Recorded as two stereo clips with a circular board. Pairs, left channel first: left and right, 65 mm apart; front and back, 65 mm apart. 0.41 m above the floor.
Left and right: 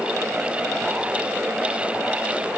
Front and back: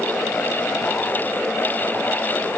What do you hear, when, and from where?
Only background noise.